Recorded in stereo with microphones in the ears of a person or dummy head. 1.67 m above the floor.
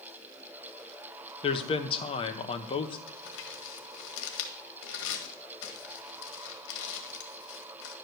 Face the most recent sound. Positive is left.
turn(degrees=70)  # may be behind; listen again after turning